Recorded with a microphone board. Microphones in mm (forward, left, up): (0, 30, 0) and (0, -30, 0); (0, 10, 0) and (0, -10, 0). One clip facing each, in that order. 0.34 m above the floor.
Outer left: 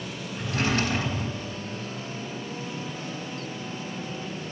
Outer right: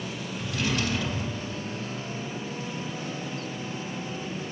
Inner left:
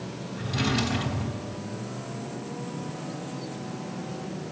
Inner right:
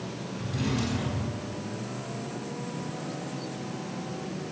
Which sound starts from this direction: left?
A drawer, at 0.4 s.